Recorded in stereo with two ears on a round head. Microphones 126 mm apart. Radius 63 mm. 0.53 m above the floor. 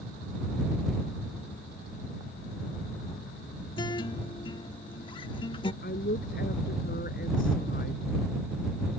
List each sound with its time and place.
3.8 s a guitar: 35° left (ahead or behind)
5.8 s a woman speaking: 60° left (ahead or behind)